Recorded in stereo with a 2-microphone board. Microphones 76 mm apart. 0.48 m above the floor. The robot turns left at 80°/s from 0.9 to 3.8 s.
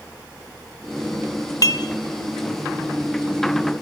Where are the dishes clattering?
50° left (ahead or behind), 0.9 m; by 1.8 s 35° left (ahead or behind), 0.9 m.